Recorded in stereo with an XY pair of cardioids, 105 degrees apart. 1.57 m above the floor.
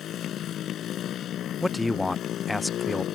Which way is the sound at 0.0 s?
65° left.